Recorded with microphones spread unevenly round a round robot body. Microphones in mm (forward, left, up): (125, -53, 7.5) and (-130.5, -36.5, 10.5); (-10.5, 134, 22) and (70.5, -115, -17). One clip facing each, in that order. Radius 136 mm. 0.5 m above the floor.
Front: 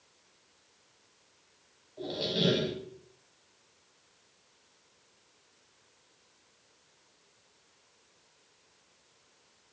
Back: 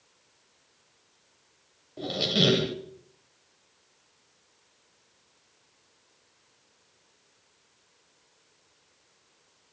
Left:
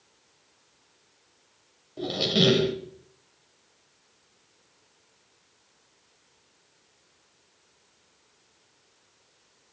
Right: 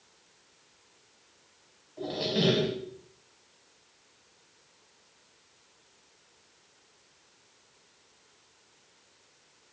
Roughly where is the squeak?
Behind left.